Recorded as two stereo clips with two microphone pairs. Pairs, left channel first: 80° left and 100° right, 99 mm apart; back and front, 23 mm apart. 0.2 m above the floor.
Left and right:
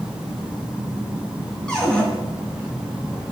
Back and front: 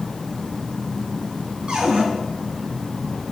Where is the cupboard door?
Straight ahead, 2 m.